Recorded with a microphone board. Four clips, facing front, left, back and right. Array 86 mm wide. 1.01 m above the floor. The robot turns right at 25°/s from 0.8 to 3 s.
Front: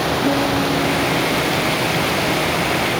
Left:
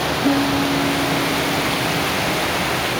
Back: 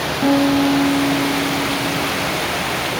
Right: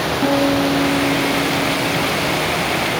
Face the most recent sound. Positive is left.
turn(degrees=-70)